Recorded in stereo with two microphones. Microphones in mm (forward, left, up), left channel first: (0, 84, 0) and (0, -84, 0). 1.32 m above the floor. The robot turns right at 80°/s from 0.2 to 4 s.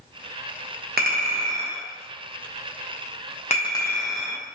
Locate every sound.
1.0 s a clink: 65° right (ahead or behind), 0.9 m; by 4.4 s 5° left (ahead or behind), 0.9 m